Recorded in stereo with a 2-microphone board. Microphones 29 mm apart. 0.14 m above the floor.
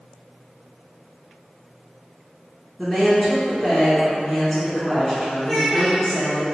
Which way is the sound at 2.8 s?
5° left (ahead or behind).